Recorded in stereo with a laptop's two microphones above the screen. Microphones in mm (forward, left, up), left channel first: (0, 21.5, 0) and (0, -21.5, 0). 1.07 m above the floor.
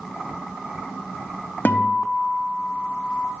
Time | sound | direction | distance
1.6 | a guitar | 45° left (ahead or behind) | 0.8 m